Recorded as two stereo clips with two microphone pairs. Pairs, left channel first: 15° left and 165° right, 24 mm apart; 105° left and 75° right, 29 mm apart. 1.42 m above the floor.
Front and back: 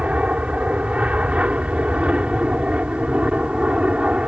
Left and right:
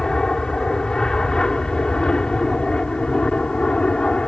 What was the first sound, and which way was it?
An aircraft, 175° left.